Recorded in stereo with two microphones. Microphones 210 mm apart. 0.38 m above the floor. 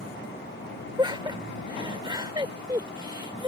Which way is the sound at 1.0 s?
20° right (ahead or behind).